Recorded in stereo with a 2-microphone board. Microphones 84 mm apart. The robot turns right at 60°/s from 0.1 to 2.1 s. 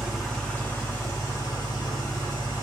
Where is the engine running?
5° right, 1.1 m; by 2.6 s 115° left, 1.1 m.